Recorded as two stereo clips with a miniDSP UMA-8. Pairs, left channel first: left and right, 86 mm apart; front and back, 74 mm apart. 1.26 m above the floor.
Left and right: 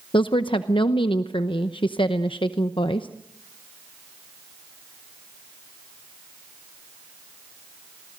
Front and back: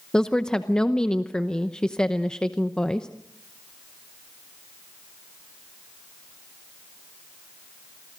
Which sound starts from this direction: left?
A woman speaking, at 0.1 s.